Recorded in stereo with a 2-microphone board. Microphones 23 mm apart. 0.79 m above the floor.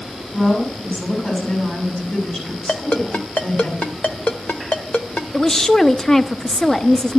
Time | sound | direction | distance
0.3 | a woman speaking | 60° left (ahead or behind) | 7 m
2.7 | a ringtone | 80° left | 1.1 m
5.3 | a woman speaking | 20° left (ahead or behind) | 0.5 m